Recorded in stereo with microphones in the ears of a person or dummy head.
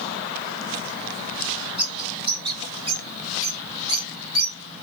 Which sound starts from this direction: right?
A bird, at 1.8 s.